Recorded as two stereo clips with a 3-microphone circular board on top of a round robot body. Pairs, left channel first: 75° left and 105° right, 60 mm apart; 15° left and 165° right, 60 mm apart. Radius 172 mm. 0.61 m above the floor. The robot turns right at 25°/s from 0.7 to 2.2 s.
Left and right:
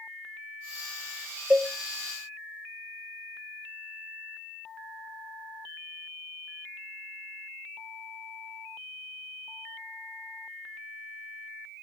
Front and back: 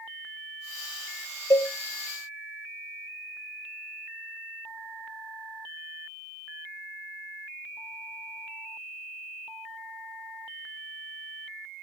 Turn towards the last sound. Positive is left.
turn(degrees=-20)